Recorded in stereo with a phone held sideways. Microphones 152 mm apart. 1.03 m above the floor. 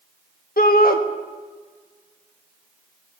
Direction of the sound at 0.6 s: 75° left (ahead or behind).